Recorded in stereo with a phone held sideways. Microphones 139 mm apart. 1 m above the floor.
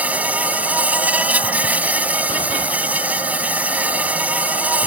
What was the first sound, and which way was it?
An insect, 10° right (ahead or behind).